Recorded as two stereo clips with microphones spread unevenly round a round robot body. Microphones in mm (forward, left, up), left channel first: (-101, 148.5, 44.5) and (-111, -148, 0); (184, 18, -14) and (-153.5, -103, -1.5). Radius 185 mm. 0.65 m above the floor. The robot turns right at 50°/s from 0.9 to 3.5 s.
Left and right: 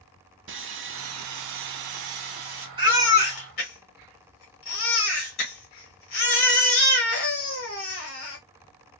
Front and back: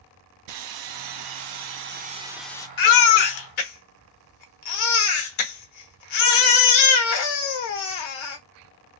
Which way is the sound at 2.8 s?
15° right.